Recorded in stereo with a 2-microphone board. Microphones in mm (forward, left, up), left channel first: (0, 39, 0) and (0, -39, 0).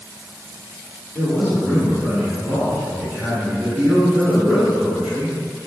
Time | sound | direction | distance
1.1 | a man speaking | 10° right (ahead or behind) | 1.7 m